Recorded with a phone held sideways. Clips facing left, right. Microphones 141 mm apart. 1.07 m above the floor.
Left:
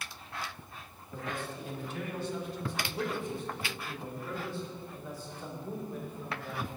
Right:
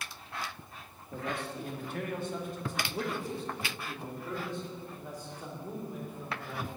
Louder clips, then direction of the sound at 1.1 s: Right 2 dB; 70° right (ahead or behind).